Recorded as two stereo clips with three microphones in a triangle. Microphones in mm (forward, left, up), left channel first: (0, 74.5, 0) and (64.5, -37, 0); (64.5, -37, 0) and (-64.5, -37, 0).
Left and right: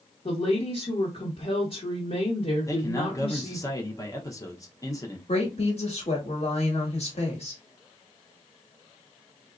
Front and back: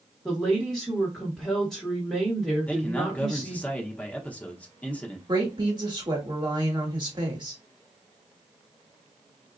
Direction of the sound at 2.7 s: 70° left.